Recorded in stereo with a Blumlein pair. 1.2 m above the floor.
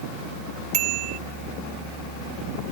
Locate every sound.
0.7 s a bicycle bell: 40° right